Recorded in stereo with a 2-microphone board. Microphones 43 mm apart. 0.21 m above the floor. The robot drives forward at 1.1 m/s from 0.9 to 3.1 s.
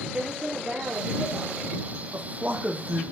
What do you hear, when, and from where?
0.1 s a woman speaking: 30° right (ahead or behind), 7 m; by 1.6 s 25° right (ahead or behind), 7.5 m
2.1 s a man speaking: 35° right (ahead or behind), 8 m